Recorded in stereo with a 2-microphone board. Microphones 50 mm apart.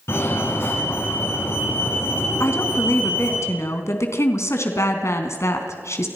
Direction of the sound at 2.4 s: 65° left (ahead or behind).